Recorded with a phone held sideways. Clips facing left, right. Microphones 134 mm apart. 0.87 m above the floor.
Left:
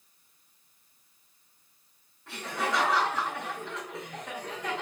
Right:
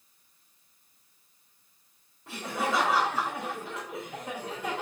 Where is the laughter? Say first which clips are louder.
Right 1 dB; 25° right (ahead or behind), 4 m.